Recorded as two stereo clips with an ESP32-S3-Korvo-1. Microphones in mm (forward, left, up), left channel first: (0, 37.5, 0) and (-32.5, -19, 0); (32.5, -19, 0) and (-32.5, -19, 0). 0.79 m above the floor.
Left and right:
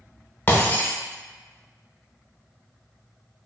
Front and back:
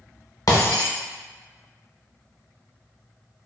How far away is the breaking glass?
About 0.8 m.